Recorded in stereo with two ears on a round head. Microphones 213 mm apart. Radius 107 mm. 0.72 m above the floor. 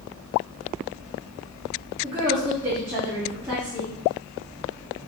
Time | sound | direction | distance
2.0 | a woman speaking | 10° right (ahead or behind) | 1.2 m